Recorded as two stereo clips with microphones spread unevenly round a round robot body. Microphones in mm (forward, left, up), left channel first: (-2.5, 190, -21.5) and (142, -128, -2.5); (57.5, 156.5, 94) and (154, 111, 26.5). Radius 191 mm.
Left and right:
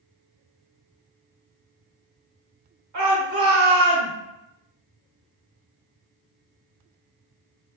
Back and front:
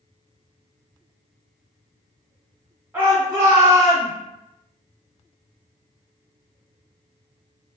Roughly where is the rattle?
I don't hear a rattle.